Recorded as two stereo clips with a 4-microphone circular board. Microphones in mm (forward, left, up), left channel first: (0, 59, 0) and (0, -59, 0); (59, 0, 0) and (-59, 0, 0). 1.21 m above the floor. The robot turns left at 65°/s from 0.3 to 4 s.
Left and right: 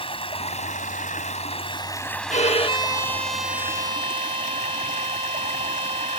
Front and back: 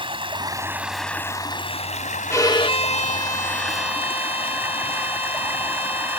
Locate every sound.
0.0 s running water: 135° left; by 6.2 s 105° right
2.3 s a violin: 70° left; by 6.2 s 40° right